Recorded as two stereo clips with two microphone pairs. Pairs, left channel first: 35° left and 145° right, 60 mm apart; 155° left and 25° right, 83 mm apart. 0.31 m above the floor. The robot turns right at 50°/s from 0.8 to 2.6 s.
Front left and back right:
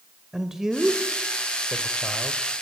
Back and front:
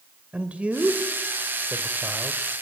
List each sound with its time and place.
0.3 s a man speaking: 75° right, 1.5 m; by 2.4 s 5° left, 1.5 m